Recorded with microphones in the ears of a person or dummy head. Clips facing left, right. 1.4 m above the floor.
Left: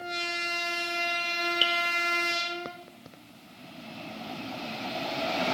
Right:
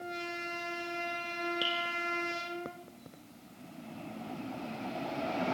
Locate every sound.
1.6 s dripping: 40° left (ahead or behind), 0.9 m